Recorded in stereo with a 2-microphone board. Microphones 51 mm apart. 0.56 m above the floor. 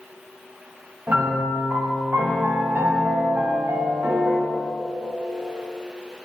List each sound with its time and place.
1.1 s a piano: 35° right (ahead or behind), 1.2 m